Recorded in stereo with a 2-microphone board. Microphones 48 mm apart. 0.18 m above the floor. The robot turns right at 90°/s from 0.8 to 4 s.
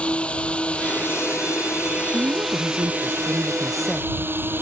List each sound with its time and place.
0.0 s a drone: 25° left; by 4.6 s 50° right
2.1 s a woman speaking: 150° right; by 4.3 s 20° left